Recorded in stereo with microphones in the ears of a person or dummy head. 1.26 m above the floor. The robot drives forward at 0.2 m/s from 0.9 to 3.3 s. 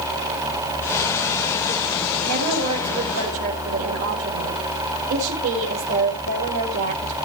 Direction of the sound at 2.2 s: 55° right (ahead or behind).